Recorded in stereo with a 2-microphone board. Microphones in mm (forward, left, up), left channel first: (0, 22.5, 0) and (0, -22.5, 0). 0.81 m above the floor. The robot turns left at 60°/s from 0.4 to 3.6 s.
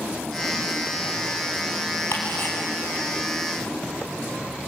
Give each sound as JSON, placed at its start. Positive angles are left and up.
{"t": 2.1, "sound": "ticking", "side_deg": 70, "distance_m": 6.0}